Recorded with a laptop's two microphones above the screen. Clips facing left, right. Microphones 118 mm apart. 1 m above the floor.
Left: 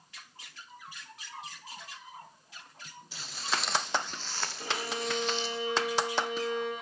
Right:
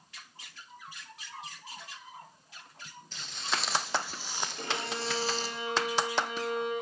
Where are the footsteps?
5° left (ahead or behind), 3.5 m; by 5.5 s 40° right (ahead or behind), 3 m.